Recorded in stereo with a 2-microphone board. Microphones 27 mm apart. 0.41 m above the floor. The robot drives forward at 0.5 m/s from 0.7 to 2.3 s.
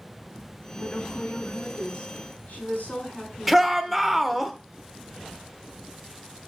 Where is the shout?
Centre (ahead or behind), 0.8 m.